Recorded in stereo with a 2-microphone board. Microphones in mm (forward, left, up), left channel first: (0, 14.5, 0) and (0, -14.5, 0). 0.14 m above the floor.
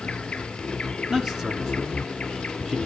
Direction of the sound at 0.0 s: 45° left (ahead or behind).